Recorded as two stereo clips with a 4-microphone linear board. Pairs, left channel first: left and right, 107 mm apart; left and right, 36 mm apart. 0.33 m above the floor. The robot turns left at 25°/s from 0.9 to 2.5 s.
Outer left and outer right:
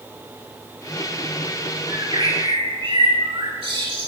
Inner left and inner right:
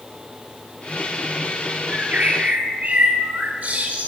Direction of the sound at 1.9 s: 40° right (ahead or behind).